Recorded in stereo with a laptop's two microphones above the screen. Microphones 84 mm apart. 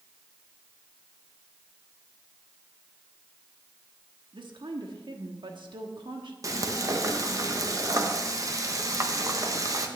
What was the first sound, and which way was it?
A woman speaking, 70° right (ahead or behind).